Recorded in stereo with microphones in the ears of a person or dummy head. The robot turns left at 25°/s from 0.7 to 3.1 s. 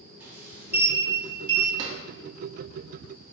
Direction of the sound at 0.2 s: 15° right (ahead or behind).